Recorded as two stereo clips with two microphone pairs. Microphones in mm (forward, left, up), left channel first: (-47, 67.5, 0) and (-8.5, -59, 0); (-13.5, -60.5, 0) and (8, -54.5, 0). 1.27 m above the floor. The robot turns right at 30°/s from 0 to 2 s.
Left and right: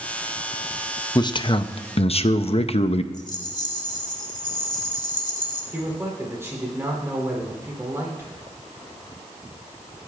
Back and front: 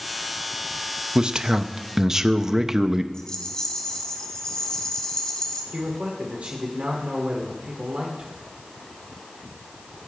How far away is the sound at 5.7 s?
About 3.5 m.